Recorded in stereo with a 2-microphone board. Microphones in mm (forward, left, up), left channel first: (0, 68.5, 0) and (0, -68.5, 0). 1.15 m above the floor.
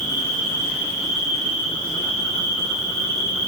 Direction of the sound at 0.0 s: 20° left (ahead or behind).